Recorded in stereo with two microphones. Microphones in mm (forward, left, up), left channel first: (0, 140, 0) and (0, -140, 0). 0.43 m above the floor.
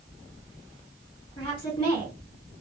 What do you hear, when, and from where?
1.4 s a woman speaking: 20° left (ahead or behind), 1.8 m